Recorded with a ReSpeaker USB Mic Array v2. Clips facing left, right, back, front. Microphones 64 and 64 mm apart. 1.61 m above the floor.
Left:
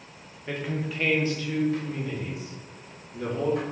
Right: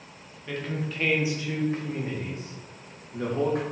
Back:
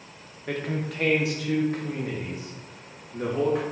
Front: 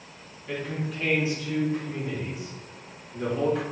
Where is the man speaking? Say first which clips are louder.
Left 1 dB, back 2 dB; 160° left, 1.0 m; by 3.6 s 115° right, 1.9 m.